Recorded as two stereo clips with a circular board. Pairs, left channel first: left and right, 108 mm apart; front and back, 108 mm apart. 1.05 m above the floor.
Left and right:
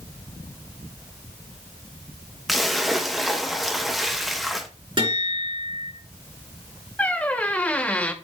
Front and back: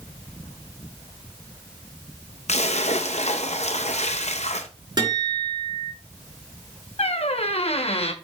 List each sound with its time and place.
2.5 s a splash: straight ahead, 0.7 m
5.0 s a guitar: 130° right, 5.5 m
7.0 s a squeak: 15° left, 0.7 m